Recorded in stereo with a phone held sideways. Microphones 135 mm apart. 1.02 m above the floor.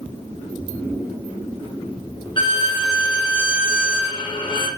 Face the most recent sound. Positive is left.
turn(degrees=35)  # may be behind; listen again after turning